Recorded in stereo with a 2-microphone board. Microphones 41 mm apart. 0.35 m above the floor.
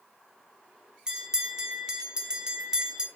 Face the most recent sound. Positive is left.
turn(degrees=-20)  # may be behind; listen again after turning